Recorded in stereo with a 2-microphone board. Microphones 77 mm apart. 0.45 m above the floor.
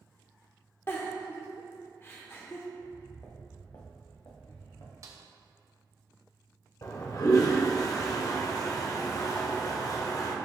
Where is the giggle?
30° left (ahead or behind), 0.8 m.